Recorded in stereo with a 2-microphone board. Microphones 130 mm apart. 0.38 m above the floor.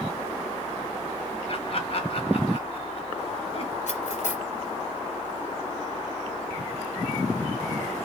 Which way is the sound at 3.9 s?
65° left (ahead or behind).